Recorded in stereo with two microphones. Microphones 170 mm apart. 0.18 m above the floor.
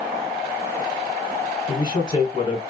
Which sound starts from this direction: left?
A man speaking, at 1.7 s.